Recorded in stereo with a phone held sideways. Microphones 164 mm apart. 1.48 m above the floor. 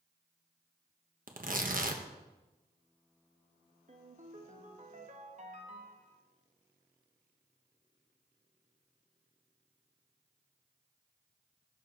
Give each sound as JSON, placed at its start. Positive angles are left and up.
{"t": 1.3, "sound": "tearing paper", "side_deg": -55, "distance_m": 1.1}
{"t": 3.9, "sound": "a ringtone", "side_deg": -50, "distance_m": 1.2}